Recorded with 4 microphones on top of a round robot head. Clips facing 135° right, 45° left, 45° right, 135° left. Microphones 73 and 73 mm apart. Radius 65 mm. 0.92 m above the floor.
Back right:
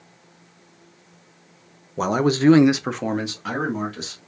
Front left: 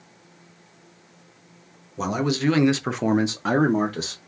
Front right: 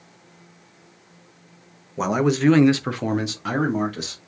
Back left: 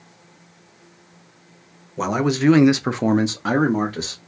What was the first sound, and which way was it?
A man speaking, 130° right.